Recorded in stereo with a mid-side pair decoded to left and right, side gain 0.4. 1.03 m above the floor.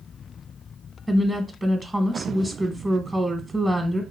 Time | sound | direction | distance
1.1 | a woman speaking | 20° right | 0.8 m